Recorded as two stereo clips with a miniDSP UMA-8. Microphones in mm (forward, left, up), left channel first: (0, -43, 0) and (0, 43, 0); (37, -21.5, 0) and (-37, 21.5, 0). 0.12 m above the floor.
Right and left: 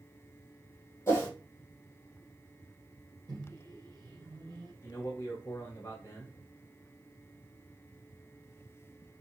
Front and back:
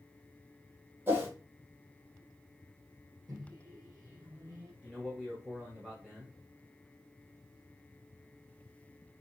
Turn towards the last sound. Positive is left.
turn(degrees=-135)